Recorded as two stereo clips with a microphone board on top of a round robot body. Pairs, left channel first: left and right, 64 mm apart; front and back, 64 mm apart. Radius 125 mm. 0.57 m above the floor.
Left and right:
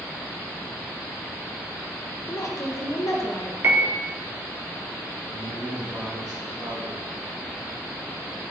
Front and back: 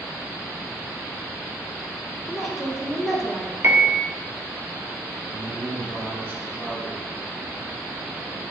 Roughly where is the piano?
Behind right.